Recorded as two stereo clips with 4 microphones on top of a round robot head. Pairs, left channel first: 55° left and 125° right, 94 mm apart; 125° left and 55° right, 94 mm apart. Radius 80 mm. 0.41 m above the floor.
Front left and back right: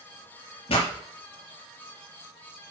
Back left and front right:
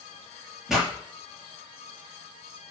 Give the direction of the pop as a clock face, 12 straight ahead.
11 o'clock.